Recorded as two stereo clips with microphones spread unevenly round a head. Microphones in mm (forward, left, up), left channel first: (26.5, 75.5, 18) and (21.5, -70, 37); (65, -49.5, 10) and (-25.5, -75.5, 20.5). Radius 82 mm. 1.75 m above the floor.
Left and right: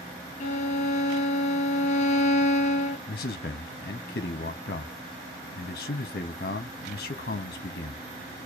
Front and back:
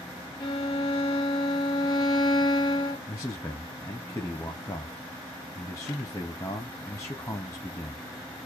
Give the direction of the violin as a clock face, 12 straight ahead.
10 o'clock.